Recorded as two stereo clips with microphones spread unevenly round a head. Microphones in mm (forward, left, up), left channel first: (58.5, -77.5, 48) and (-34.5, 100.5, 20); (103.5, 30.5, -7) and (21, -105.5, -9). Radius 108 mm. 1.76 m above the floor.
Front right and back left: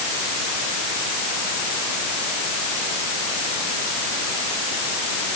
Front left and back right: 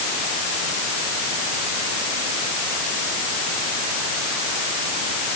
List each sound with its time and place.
Only background noise.